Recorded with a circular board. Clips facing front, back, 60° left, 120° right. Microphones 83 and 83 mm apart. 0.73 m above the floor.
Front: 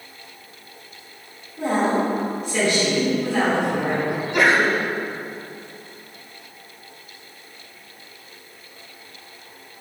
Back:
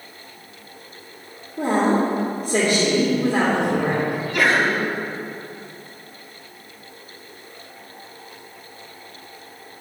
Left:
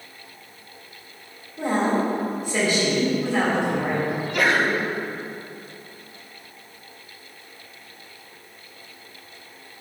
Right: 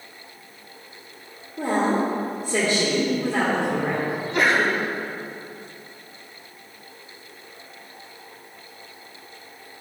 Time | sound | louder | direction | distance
1.6 | a woman speaking | back 2 dB, even | 155° right | 1.7 m
4.1 | a sneeze | front 1 dB, right 2 dB | 65° right | 1.2 m